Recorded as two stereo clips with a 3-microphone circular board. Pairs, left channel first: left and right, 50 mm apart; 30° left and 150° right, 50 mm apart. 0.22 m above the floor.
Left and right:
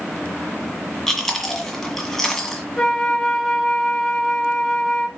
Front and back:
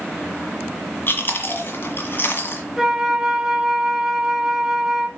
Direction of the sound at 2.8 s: 145° left.